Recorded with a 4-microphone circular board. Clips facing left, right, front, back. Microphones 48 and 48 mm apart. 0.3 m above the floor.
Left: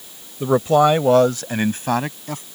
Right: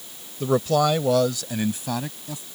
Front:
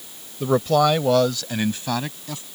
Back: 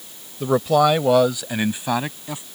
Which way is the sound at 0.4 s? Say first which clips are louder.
Left 5 dB, back 1 dB; 95° left.